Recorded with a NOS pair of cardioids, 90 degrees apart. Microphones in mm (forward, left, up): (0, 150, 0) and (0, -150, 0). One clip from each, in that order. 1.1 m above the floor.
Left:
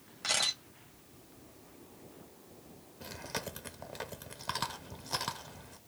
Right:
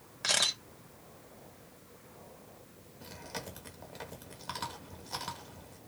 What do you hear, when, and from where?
0.2 s a camera shutter: 30° right, 1.7 m
3.0 s chewing: 25° left, 0.9 m